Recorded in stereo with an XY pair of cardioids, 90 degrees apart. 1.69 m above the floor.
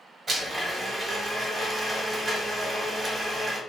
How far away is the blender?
About 1.1 m.